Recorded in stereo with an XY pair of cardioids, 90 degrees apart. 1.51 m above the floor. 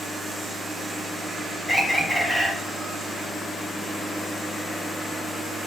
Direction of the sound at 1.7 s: 5° right.